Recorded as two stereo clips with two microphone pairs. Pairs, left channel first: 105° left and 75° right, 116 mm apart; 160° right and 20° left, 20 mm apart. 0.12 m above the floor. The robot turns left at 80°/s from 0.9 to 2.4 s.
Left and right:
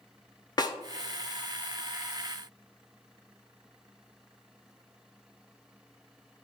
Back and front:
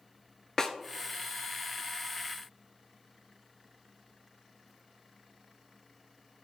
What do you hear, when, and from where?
0.6 s a snare drum: 145° left, 0.5 m